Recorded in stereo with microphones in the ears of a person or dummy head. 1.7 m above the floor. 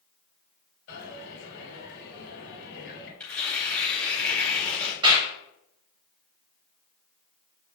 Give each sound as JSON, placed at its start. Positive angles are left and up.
{"t": 0.9, "sound": "a dropped coin", "side_deg": 55, "distance_m": 3.5}
{"t": 3.2, "sound": "tearing paper", "side_deg": 5, "distance_m": 2.0}
{"t": 5.0, "sound": "a clap", "side_deg": -30, "distance_m": 2.5}